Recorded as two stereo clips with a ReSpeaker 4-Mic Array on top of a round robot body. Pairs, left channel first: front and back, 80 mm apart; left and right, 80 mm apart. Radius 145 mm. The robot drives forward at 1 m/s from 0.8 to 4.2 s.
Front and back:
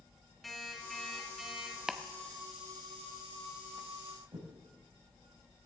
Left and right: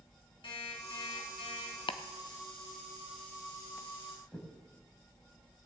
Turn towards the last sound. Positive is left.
turn(degrees=165)